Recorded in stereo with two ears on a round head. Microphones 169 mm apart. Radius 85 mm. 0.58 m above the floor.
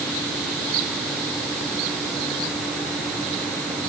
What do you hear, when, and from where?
Only background noise.